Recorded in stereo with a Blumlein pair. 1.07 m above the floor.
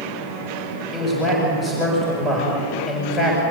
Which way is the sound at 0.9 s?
10° left.